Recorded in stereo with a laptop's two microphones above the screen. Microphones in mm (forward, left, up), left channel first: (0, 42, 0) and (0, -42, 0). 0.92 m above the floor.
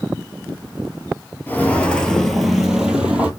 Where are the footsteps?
25° left (ahead or behind), 0.9 m; by 3.3 s 15° right (ahead or behind), 1.4 m.